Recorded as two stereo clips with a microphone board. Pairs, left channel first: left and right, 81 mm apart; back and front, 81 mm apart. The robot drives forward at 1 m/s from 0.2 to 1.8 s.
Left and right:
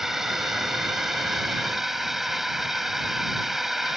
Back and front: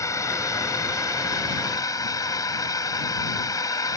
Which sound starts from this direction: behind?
A drone, at 0.0 s.